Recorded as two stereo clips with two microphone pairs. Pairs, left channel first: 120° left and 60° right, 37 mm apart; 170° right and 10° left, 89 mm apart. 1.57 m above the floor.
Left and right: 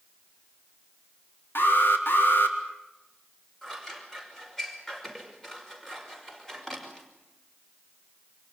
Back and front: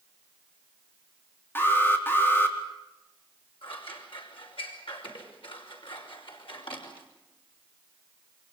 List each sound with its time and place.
1.6 s an alarm: 125° left, 4 m
3.6 s scissors: 160° right, 5.5 m